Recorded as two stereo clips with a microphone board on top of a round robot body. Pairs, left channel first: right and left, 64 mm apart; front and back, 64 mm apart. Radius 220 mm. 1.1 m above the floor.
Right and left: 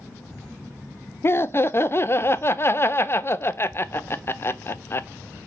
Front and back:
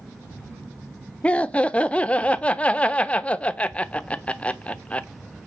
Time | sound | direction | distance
1.2 | laughter | 65° right | 0.6 m